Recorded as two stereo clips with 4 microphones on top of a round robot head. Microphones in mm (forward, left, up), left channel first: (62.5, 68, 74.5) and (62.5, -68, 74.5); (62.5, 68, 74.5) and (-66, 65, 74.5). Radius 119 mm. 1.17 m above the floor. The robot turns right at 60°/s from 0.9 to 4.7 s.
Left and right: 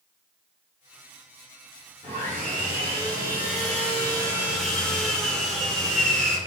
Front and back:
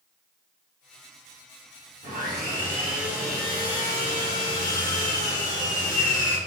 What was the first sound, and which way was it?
Sawing, 160° right.